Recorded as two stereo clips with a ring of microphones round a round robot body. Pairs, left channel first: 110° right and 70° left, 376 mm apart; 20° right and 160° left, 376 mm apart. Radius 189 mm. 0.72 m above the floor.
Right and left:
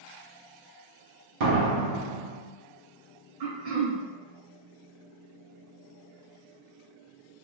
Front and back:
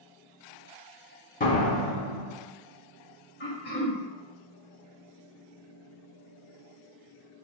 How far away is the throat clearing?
About 2.0 m.